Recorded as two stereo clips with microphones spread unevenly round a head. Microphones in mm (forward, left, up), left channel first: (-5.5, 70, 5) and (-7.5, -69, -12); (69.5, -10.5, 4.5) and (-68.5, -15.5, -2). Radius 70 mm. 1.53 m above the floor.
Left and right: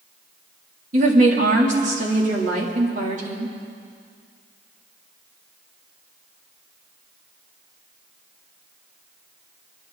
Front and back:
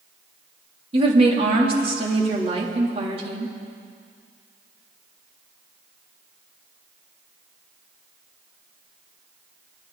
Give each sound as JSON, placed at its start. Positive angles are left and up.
{"t": 0.9, "sound": "a woman speaking", "azimuth_deg": -125, "distance_m": 3.0}